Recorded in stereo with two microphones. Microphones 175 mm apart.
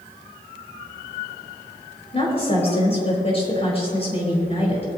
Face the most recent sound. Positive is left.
turn(degrees=35)  # may be behind; listen again after turning